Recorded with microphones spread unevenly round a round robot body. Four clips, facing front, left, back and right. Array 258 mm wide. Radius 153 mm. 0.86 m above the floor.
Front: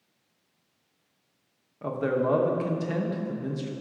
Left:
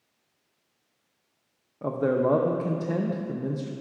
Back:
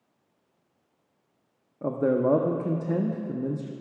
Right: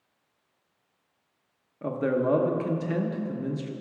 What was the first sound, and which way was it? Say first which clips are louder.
A man speaking: left 2 dB, back 3 dB; 175° left.